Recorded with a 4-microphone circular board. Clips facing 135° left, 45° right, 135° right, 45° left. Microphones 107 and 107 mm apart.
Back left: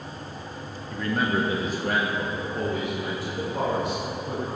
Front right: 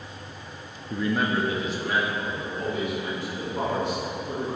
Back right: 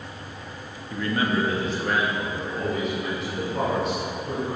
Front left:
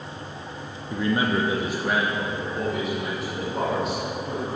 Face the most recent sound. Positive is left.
turn(degrees=135)